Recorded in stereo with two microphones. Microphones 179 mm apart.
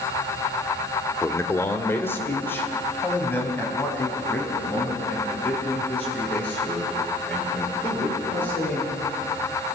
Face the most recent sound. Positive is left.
turn(degrees=10)  # may be behind; listen again after turning